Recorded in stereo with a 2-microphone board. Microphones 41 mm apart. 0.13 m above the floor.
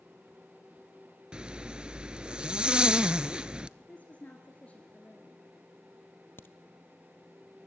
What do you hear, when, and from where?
1.3 s a zipper: 25° right (ahead or behind), 0.5 m
3.8 s a woman speaking: 35° left (ahead or behind), 1.7 m
6.4 s a crack: 65° left (ahead or behind), 0.8 m